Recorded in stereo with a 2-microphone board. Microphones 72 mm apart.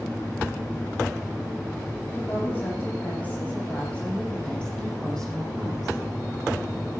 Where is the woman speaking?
30° left (ahead or behind), 9 m; by 6.0 s centre (ahead or behind), 10 m.